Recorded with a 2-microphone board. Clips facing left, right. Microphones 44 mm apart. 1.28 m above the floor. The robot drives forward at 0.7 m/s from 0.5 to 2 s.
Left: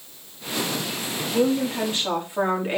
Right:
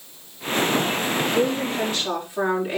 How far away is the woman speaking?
About 3 m.